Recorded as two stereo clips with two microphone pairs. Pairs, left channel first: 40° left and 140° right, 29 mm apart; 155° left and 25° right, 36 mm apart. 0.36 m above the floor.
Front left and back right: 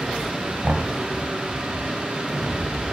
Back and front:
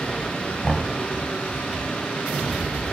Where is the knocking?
105° right, 1.4 m.